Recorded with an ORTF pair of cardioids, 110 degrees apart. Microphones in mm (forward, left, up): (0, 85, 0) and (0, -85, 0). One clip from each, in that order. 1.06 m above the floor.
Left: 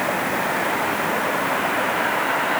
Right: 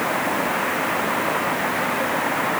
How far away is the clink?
I don't hear a clink.